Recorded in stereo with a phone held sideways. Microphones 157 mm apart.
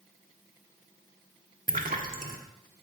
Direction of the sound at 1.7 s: 60° right (ahead or behind).